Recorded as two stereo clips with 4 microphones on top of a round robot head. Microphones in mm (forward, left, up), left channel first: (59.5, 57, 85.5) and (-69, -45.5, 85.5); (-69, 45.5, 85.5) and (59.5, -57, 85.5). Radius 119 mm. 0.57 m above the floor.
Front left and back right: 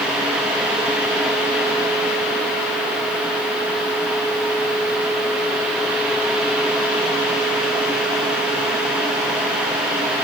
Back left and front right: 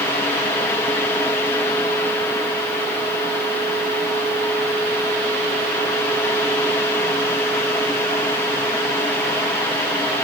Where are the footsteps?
I don't hear footsteps.